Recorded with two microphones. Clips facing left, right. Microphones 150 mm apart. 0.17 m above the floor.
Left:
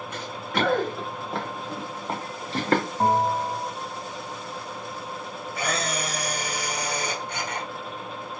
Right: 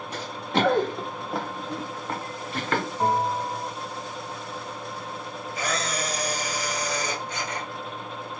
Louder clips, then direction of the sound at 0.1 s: Right 3 dB; 35° right (ahead or behind).